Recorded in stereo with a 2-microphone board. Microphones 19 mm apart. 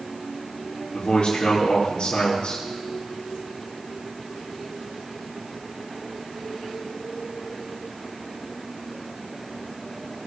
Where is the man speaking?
55° left (ahead or behind), 4 m.